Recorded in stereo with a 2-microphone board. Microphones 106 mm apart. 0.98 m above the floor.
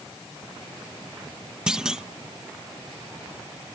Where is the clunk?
5° right (ahead or behind).